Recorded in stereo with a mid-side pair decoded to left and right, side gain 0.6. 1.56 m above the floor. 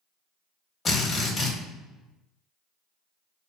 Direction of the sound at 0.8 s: 30° left.